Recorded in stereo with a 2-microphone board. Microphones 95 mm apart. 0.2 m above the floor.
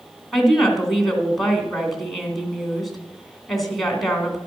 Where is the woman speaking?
Centre (ahead or behind), 2 m.